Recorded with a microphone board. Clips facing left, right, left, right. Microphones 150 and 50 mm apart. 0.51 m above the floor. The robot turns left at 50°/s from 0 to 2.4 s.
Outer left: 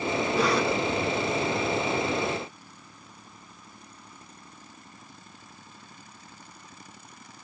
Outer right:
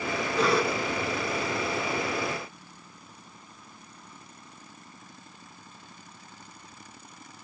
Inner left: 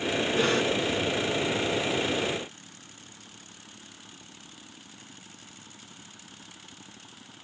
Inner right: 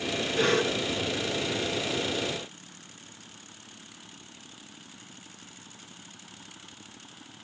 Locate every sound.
0.3 s a cough: 5° left (ahead or behind), 6 m; by 0.8 s 15° right (ahead or behind), 6 m